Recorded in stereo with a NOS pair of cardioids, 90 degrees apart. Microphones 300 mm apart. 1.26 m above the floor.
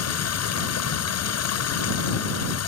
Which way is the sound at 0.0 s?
55° left.